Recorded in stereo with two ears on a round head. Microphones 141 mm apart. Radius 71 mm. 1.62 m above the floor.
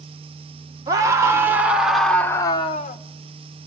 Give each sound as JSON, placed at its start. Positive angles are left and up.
{"t": 0.9, "sound": "a scream", "side_deg": -25, "distance_m": 1.5}